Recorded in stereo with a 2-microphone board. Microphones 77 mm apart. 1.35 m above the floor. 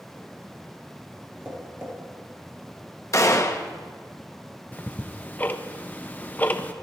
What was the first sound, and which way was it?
Tapping, 25° right (ahead or behind).